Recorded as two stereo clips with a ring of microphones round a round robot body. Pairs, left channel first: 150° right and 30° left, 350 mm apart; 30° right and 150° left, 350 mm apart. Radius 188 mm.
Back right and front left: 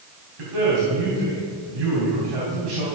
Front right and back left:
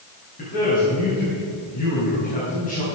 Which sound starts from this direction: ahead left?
A man speaking, at 0.4 s.